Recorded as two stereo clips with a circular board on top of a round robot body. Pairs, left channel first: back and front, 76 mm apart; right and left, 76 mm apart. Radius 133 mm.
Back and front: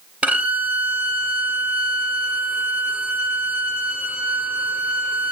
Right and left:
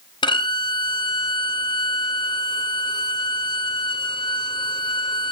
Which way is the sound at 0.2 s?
70° right.